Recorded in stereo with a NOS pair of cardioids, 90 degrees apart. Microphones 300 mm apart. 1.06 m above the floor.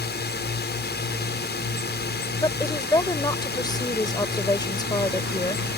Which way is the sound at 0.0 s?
35° left.